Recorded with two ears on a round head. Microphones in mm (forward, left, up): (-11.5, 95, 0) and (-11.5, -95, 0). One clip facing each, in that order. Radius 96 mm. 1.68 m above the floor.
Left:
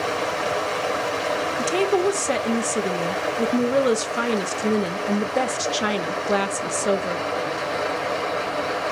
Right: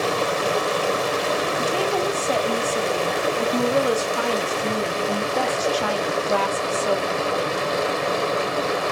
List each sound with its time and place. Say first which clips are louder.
0.0 s running water: right 3 dB; 50° right (ahead or behind), 0.8 m
1.6 s a woman speaking: left 7 dB; 25° left (ahead or behind), 0.7 m